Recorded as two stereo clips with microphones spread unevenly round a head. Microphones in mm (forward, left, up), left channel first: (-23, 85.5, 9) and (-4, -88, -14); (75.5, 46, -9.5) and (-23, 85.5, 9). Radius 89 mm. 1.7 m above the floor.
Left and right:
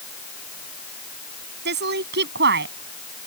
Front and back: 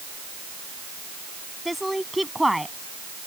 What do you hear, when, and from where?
1.6 s a woman speaking: 115° right